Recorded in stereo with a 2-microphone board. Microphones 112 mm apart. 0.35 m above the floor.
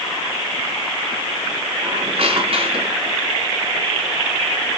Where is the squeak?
60° right (ahead or behind), 2.5 m.